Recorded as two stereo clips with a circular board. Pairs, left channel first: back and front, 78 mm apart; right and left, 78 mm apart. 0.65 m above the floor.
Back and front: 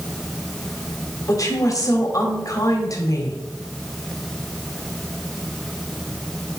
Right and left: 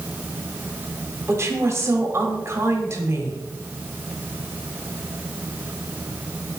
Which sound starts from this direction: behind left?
A woman speaking, at 1.3 s.